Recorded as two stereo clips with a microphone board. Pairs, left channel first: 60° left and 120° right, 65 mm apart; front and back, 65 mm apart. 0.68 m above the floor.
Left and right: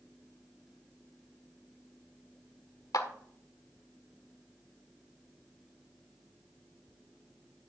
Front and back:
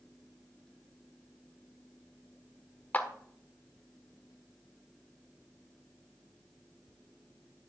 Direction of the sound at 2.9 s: 65° left.